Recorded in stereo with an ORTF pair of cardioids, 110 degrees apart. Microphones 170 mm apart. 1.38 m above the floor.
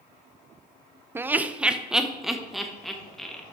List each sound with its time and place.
1.1 s laughter: 15° right, 0.5 m; by 3.4 s straight ahead, 1.8 m